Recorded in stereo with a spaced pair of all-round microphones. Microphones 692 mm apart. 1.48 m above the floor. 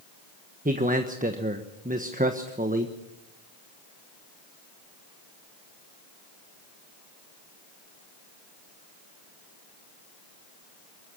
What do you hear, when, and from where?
0.7 s a man speaking: 10° right (ahead or behind), 1.1 m